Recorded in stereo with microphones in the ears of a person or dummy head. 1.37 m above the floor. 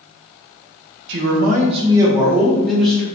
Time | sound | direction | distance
1.1 | a man speaking | 60° right (ahead or behind) | 0.6 m